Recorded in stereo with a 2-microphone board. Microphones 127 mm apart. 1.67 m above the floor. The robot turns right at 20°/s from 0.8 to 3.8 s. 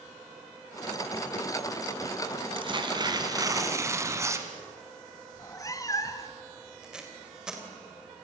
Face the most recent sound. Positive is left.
turn(degrees=-5)  # may be behind; listen again after turning